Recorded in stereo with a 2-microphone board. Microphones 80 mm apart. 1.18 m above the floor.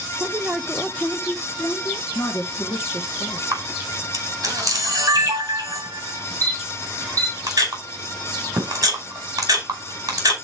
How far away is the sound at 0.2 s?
About 0.7 m.